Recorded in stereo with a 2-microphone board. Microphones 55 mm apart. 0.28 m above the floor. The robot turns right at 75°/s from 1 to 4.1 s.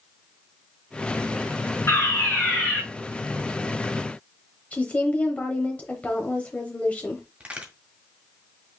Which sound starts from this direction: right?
A crack, at 7.4 s.